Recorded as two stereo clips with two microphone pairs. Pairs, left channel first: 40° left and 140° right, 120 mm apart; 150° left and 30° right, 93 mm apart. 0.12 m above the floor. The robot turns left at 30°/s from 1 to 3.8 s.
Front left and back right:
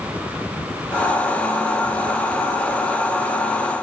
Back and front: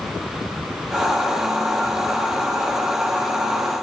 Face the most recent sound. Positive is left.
No sound to turn to.